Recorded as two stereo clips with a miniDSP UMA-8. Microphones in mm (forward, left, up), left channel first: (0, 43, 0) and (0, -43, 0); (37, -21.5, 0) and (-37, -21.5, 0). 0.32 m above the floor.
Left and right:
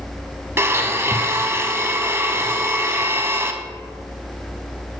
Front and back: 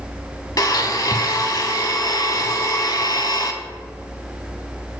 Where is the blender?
30° right, 0.6 m.